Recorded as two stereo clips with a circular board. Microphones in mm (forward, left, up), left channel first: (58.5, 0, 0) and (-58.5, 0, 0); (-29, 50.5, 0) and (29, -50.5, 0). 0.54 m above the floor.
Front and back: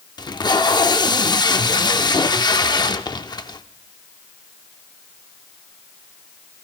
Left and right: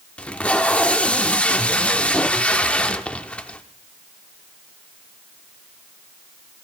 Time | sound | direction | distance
0.2 | tape being pulled | 45° left | 0.5 m